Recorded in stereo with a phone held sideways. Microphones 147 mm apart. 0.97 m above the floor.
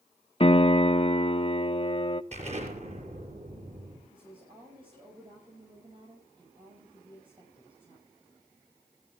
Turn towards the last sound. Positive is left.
turn(degrees=-35)  # may be behind; listen again after turning